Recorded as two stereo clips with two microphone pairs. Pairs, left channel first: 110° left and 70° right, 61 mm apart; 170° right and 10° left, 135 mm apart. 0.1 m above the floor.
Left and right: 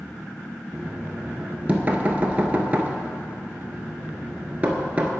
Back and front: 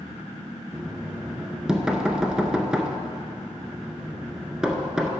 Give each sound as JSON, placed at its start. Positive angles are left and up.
{"t": 0.7, "sound": "knocking", "azimuth_deg": -70, "distance_m": 0.8}